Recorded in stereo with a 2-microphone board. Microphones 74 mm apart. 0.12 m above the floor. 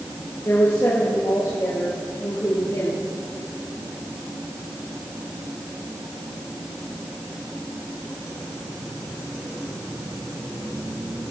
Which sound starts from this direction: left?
A woman speaking, at 0.5 s.